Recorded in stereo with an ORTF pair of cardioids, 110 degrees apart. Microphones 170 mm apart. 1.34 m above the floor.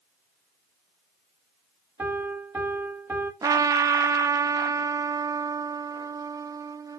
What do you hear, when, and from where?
2.0 s a piano: 10° right, 3 m
3.4 s a trumpet: 20° right, 0.6 m